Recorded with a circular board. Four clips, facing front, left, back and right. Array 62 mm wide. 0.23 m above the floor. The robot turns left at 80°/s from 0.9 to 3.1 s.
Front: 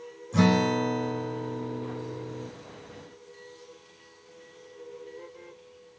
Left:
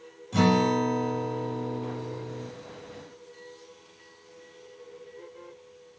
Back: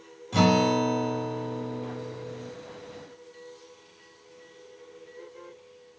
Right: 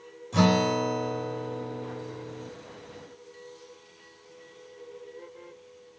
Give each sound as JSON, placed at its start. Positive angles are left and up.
{"t": 0.3, "sound": "a guitar", "azimuth_deg": 170, "distance_m": 4.0}